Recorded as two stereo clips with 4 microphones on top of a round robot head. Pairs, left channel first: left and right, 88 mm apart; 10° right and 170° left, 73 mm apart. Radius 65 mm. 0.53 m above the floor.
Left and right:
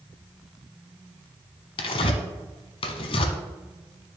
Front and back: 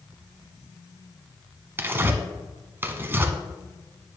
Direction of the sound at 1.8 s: 110° left.